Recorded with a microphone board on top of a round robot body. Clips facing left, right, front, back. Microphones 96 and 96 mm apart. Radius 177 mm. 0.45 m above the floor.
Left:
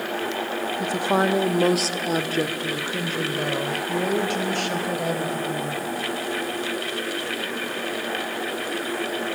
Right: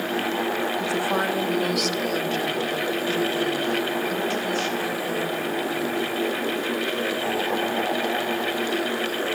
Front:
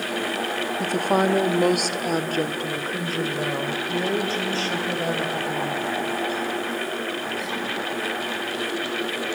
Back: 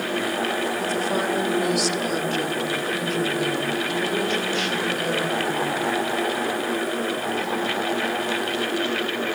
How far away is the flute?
No flute in this recording.